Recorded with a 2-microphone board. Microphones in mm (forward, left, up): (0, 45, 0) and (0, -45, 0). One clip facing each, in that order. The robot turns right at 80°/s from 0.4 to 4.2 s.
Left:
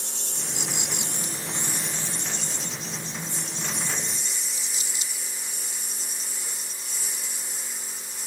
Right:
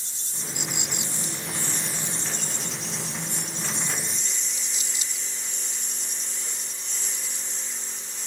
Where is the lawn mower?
65° left; by 8.3 s 10° left.